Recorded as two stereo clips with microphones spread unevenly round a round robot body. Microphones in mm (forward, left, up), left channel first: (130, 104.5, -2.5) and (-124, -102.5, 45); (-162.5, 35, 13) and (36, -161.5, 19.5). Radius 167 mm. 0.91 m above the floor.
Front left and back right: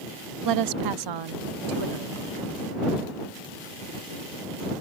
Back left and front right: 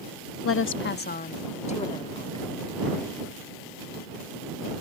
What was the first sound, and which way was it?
A woman speaking, straight behind.